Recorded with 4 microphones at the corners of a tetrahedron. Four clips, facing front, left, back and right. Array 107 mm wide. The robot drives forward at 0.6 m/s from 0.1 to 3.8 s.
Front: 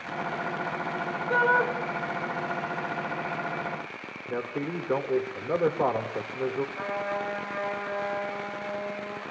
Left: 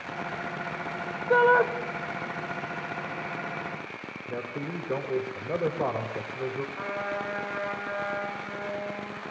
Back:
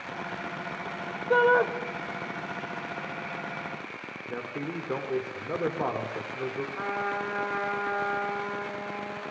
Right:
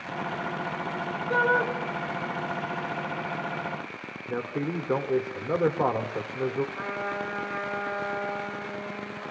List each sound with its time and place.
1.3 s a shout: 120° left, 1.5 m; by 1.7 s 130° left, 1.6 m
4.3 s a man speaking: 75° right, 1.1 m
6.8 s a trumpet: 165° right, 9 m